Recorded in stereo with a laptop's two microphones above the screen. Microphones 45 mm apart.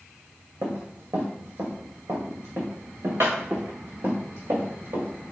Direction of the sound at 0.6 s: 70° right (ahead or behind).